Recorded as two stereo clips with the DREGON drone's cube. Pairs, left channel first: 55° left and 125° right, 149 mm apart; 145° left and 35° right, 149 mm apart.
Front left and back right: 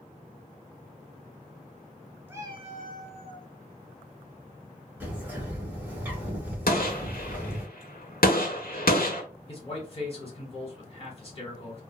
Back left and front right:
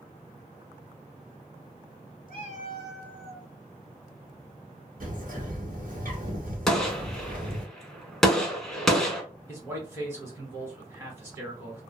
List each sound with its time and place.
2.3 s a cat meowing: 155° left, 0.6 m; by 3.5 s 115° right, 0.9 m
5.0 s a bird: 45° right, 1.3 m
6.7 s a gunshot: 60° left, 0.6 m
9.5 s a man speaking: 30° left, 1.5 m